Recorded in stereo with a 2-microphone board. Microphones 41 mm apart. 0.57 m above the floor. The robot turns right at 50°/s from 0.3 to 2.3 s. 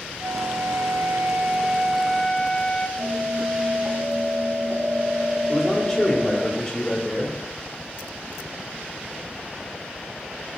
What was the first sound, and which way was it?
A flute, 80° right.